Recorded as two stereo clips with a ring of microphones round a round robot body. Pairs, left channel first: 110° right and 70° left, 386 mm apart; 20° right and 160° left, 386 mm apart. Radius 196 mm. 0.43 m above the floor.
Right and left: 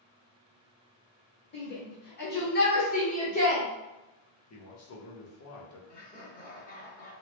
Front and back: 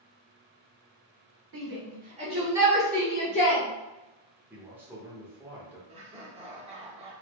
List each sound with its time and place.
1.5 s a shout: 165° right, 1.7 m; by 3.6 s 60° right, 1.5 m
4.5 s a man speaking: 120° right, 0.9 m
5.9 s laughter: 145° right, 0.9 m